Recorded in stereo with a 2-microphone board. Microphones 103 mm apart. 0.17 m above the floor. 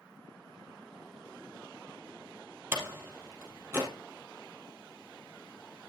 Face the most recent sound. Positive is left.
turn(degrees=-25)  # may be behind; listen again after turning